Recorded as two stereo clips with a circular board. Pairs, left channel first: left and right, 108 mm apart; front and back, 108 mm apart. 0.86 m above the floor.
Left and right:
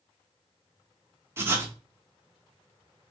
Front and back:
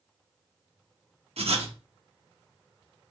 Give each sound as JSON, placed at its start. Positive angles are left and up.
{"t": 1.4, "sound": "writing", "azimuth_deg": -155, "distance_m": 0.8}